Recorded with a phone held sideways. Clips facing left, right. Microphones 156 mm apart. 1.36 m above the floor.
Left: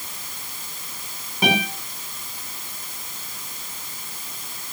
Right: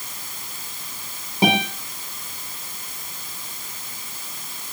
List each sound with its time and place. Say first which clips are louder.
1.4 s a guitar: right 3 dB; 30° right (ahead or behind), 6.5 m